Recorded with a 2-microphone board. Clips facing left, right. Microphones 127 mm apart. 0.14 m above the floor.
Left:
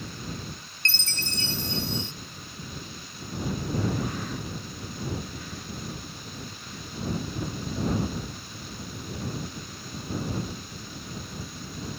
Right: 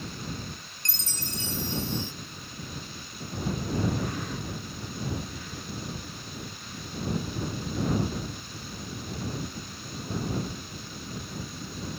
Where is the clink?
I don't hear a clink.